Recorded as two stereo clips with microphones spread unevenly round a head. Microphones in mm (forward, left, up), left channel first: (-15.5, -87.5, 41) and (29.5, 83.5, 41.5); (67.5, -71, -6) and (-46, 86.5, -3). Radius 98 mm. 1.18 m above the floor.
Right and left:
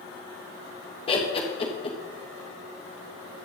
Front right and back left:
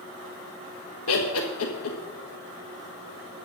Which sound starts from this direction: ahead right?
Laughter, at 1.1 s.